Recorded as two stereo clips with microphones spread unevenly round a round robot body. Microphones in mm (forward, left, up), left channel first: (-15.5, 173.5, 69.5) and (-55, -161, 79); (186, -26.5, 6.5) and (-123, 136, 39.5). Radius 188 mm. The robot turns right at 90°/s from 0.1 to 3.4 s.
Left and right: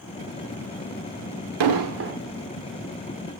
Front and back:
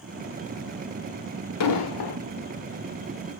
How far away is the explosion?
About 1.1 m.